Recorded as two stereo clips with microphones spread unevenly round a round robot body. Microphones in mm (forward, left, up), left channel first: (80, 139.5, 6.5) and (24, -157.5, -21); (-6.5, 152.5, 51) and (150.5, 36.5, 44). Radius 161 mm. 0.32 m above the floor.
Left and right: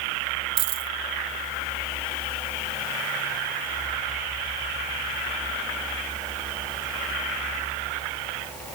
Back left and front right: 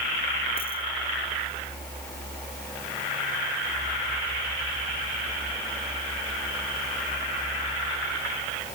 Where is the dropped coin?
145° right.